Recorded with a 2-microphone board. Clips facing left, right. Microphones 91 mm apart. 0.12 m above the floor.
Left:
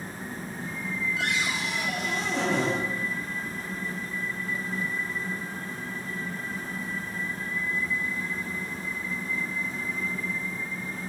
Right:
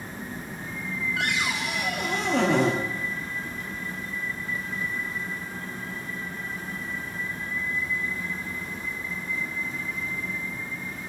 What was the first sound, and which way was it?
A cupboard door, 60° right (ahead or behind).